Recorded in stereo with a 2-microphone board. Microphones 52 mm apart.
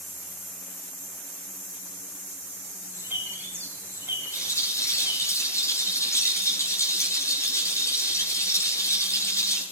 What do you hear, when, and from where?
2.9 s a bird: 45° right (ahead or behind), 5.5 m
4.3 s a rattle: 75° left (ahead or behind), 8.5 m